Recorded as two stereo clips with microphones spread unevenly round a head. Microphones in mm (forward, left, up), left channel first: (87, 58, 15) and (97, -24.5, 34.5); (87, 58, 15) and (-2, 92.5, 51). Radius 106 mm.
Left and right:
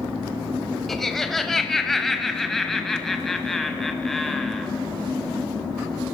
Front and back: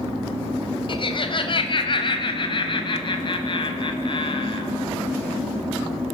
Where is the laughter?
10° left, 6 m.